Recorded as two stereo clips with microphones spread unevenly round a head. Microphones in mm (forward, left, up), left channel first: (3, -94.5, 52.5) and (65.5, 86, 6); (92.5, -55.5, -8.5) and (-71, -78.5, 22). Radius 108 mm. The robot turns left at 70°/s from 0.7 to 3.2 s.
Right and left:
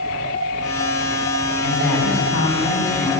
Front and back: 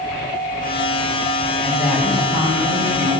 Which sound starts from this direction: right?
A woman speaking, at 1.6 s.